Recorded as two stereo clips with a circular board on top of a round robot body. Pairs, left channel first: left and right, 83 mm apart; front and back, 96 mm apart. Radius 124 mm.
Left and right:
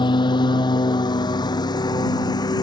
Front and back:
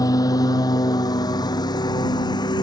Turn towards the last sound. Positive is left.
turn(degrees=50)